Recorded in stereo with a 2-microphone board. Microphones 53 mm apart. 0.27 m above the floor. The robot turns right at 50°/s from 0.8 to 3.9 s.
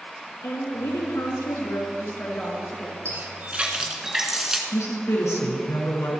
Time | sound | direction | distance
0.4 | a woman speaking | 80° left | 4 m
3.0 | a running tap | 50° right | 1.8 m
4.7 | a woman speaking | 65° left (ahead or behind) | 3.5 m